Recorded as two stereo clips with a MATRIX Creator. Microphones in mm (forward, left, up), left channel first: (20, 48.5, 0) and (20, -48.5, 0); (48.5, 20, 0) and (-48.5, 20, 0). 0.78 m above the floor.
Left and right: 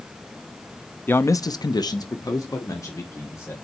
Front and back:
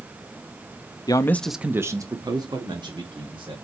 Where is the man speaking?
25° left, 0.8 m; by 3.5 s 150° left, 3 m.